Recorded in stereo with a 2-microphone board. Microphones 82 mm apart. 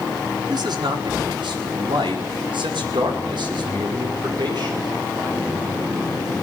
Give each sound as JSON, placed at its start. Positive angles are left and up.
{"t": 0.5, "sound": "a man speaking", "side_deg": -65, "distance_m": 4.5}